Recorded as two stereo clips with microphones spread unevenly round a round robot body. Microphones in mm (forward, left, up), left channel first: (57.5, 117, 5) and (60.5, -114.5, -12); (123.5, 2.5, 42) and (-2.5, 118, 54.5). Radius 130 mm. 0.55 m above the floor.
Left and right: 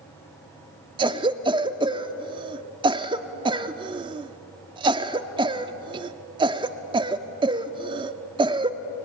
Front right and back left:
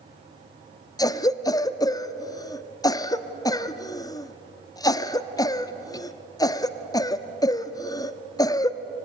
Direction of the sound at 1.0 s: 60° right.